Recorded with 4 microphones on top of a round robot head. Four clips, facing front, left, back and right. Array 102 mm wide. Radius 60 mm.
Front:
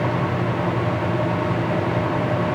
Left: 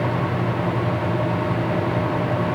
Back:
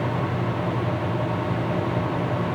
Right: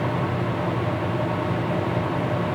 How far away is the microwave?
No microwave in this recording.